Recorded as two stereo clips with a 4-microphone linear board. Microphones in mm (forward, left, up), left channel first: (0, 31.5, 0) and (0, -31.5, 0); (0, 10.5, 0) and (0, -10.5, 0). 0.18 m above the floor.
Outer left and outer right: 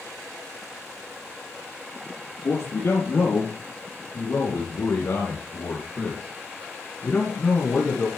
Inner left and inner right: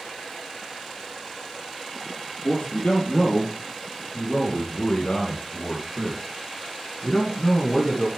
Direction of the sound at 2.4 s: 50° left (ahead or behind).